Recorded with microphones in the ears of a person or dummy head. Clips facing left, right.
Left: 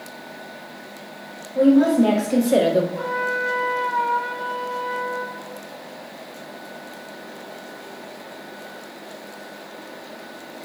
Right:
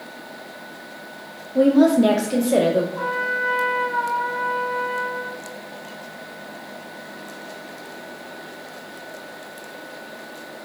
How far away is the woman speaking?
About 0.7 m.